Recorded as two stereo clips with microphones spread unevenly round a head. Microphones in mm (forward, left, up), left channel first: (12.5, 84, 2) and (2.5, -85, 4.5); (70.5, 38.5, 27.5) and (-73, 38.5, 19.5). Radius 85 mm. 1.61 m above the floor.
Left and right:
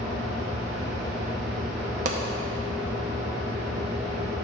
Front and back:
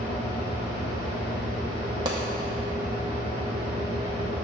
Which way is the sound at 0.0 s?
5° right.